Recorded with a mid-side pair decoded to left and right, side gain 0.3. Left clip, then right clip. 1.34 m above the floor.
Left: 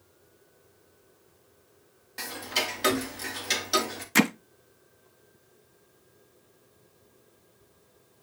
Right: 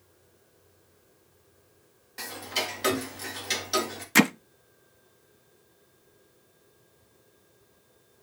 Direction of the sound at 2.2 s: 25° left.